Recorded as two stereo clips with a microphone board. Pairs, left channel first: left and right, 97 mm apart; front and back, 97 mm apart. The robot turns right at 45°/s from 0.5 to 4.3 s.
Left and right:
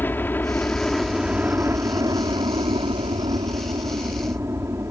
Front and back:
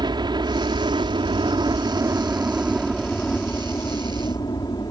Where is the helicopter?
155° left; by 4.9 s 35° right.